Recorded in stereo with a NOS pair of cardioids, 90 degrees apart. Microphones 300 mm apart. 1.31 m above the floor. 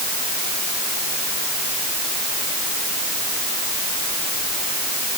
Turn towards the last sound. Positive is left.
No sound to turn to.